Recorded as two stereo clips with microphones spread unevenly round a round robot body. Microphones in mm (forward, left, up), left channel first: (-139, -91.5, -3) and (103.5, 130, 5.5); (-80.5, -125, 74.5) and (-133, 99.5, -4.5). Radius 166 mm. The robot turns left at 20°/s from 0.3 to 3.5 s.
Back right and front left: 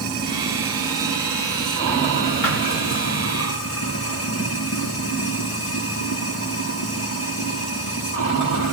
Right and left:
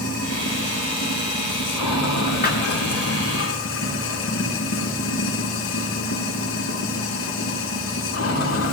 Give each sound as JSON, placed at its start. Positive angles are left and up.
{"t": 0.0, "sound": "running water", "azimuth_deg": -35, "distance_m": 8.0}
{"t": 2.4, "sound": "a thud", "azimuth_deg": -125, "distance_m": 8.0}